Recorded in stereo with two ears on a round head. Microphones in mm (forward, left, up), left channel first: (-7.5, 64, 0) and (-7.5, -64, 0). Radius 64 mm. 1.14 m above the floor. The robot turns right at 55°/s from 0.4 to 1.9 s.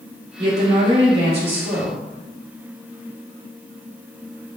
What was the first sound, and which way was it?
A woman speaking, 140° right.